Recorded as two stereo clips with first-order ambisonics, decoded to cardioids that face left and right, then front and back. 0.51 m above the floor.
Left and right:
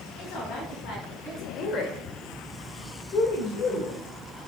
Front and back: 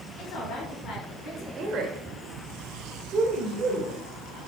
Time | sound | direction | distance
0.2 | a woman speaking | 35° left | 4 m
1.6 | a woman speaking | 135° left | 1.6 m